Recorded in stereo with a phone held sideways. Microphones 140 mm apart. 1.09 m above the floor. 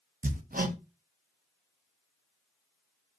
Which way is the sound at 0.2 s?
85° right.